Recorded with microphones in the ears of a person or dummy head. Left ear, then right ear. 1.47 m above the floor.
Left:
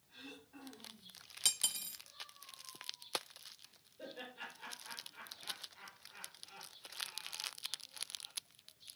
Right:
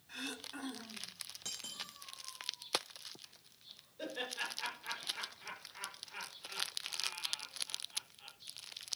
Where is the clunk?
No clunk in this recording.